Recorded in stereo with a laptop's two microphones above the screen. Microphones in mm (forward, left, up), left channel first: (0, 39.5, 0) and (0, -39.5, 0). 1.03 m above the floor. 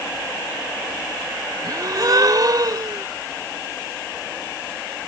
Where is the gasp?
55° right (ahead or behind).